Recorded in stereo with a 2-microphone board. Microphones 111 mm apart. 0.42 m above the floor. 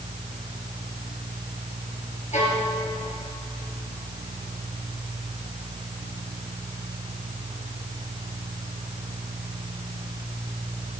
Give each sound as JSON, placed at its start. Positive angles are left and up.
{"t": 2.3, "sound": "a violin", "side_deg": 85, "distance_m": 3.5}